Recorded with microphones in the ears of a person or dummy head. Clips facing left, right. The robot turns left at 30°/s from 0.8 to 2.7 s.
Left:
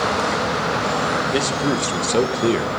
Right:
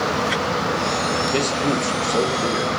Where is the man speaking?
170° left, 0.8 m; by 2.7 s 130° left, 0.8 m.